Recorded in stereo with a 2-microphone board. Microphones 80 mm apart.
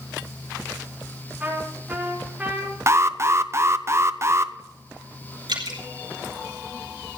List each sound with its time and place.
1.4 s a trumpet: 15° right (ahead or behind), 5.5 m
2.9 s an alarm: 35° right (ahead or behind), 0.6 m
5.5 s dripping: 80° right, 4 m